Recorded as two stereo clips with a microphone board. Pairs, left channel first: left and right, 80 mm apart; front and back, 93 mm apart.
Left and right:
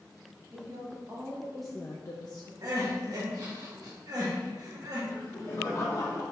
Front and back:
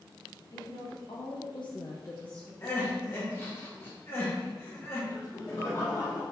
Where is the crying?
60° right, 1.3 m.